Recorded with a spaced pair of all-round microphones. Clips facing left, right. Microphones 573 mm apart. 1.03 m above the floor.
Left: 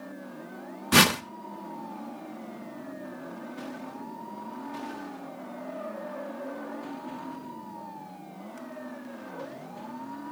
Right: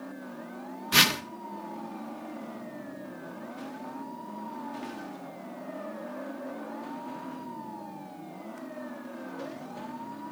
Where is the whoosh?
80° left, 0.6 m.